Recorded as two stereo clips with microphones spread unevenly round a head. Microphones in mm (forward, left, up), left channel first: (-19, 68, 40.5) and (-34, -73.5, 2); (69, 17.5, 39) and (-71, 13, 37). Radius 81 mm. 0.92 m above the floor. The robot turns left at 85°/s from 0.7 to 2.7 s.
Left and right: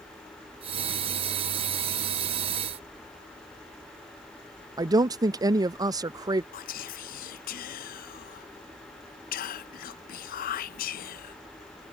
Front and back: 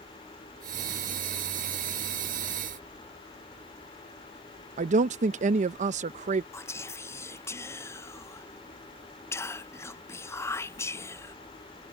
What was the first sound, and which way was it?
A woman speaking, 150° right.